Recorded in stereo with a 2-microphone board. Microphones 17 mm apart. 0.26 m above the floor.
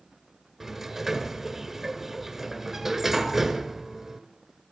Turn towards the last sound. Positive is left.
turn(degrees=-20)  # may be behind; listen again after turning